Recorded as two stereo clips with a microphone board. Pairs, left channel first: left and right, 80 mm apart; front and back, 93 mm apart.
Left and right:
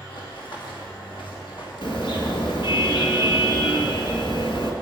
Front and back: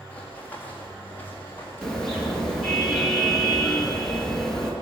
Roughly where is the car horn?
Left.